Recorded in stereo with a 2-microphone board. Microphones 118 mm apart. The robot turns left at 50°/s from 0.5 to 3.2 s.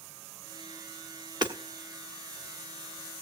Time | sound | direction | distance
1.4 | hammering | 40° right (ahead or behind) | 1.4 m